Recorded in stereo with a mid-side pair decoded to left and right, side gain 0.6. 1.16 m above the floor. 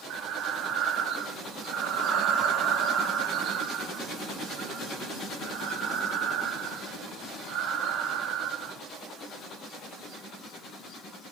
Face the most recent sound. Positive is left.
turn(degrees=-60)